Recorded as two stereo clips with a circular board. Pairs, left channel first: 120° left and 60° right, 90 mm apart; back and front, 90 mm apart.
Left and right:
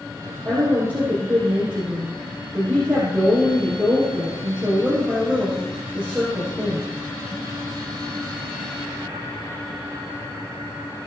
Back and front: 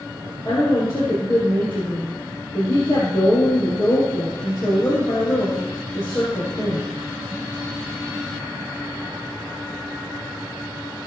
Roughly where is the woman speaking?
Behind right.